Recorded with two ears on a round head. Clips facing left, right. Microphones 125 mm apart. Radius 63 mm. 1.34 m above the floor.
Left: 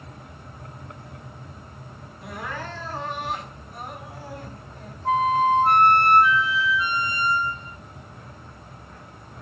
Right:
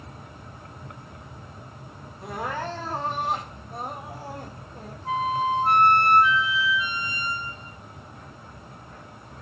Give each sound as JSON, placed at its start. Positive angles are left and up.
{"t": 2.2, "sound": "crying", "side_deg": -30, "distance_m": 2.5}
{"t": 5.0, "sound": "a flute", "side_deg": 45, "distance_m": 0.5}